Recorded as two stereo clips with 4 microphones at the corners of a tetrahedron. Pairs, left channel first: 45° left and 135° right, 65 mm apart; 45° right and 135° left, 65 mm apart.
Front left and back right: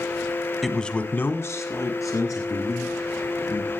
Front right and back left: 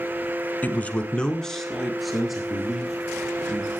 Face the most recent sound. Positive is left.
turn(degrees=55)